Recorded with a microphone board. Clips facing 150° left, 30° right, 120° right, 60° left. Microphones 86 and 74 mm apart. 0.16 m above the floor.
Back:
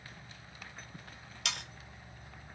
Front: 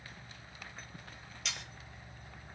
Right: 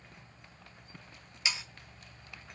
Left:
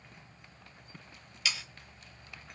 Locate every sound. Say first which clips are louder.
1.4 s sawing: back 4 dB, even; 170° left, 0.5 m